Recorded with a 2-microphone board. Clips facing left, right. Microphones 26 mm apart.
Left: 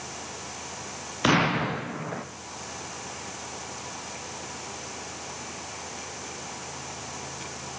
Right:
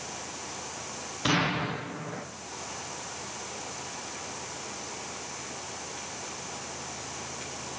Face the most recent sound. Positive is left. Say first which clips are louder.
# left 4 dB
turn(degrees=75)  # may be behind; listen again after turning